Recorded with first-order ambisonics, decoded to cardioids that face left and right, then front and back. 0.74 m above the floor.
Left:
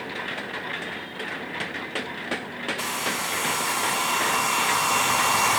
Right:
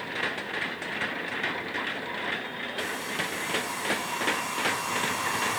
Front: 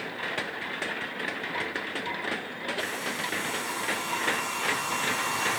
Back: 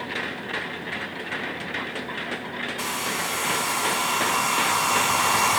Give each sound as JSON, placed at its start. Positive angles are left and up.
{"t": 2.8, "sound": "a hair dryer", "azimuth_deg": 135, "distance_m": 0.6}